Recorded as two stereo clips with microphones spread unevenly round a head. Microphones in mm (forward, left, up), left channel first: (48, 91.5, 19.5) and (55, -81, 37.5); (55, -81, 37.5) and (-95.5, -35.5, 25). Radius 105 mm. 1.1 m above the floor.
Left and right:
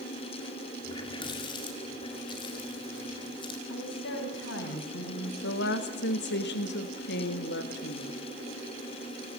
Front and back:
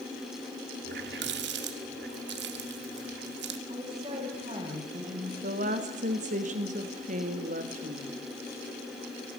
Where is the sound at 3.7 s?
95° left, 7 m.